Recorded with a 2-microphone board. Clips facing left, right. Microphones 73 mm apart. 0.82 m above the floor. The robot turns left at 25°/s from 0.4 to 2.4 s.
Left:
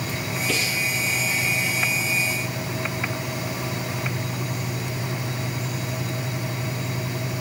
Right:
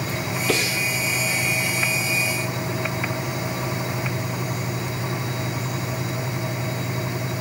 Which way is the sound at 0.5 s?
55° right (ahead or behind).